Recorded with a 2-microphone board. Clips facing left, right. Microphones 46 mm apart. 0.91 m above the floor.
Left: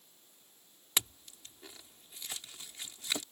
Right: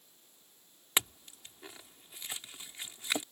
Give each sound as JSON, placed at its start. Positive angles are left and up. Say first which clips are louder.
{"t": 1.0, "sound": "a clink", "louder": "right 3 dB", "side_deg": -25}